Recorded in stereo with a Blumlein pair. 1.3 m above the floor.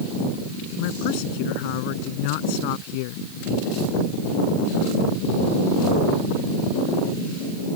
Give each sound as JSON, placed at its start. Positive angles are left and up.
{"t": 0.8, "sound": "a man speaking", "azimuth_deg": 45}